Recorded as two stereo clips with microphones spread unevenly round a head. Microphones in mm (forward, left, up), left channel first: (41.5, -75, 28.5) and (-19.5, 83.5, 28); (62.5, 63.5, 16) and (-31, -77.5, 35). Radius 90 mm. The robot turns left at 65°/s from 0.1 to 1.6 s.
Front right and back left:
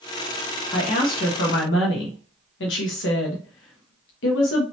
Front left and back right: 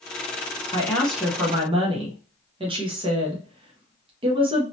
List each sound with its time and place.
0.7 s a woman speaking: 5° right, 1.2 m; by 4.6 s 60° right, 1.2 m